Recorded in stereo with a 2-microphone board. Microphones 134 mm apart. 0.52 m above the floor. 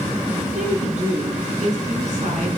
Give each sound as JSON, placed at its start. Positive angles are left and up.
{"t": 0.4, "sound": "a woman speaking", "side_deg": -60, "distance_m": 6.5}